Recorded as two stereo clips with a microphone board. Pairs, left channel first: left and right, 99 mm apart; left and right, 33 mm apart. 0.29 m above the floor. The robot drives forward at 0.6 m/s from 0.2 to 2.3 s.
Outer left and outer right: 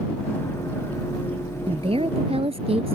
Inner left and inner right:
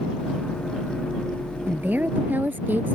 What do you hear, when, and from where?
1.7 s a woman speaking: 70° right (ahead or behind); by 3.0 s 75° right (ahead or behind)